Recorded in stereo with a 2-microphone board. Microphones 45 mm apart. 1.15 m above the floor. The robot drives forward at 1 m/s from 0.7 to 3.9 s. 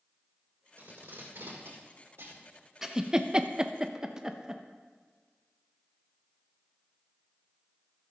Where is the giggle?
15° right (ahead or behind), 0.8 m.